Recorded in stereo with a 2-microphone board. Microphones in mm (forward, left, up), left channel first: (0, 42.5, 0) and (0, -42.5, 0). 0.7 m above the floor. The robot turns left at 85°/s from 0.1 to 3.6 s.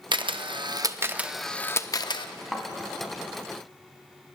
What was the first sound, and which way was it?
A camera shutter, 65° right (ahead or behind).